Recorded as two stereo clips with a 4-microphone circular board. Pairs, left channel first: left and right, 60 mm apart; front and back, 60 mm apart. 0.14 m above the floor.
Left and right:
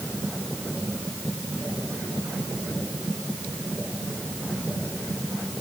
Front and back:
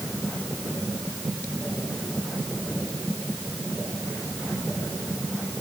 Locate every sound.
Only background noise.